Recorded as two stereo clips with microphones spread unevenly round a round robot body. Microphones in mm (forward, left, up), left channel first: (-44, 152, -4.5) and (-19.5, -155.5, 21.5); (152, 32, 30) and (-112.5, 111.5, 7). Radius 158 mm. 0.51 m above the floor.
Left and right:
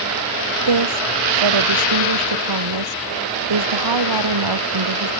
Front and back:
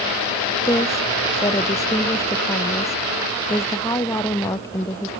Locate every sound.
0.7 s a woman speaking: 100° right